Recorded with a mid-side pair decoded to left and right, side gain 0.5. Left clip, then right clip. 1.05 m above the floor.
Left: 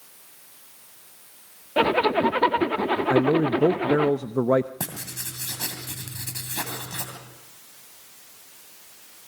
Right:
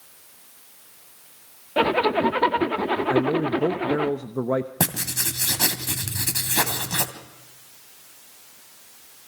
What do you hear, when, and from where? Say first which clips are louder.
1.8 s a zipper: even; straight ahead, 1.2 m
3.1 s a man speaking: left 3 dB; 25° left, 0.8 m
4.8 s writing: right 8 dB; 50° right, 2.5 m